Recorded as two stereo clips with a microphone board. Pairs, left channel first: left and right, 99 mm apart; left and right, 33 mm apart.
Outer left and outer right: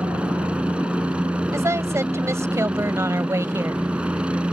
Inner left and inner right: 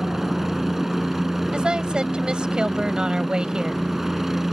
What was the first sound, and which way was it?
A helicopter, 10° right (ahead or behind).